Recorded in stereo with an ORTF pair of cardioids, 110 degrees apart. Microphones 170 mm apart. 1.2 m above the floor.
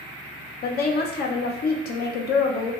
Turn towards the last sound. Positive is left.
turn(degrees=70)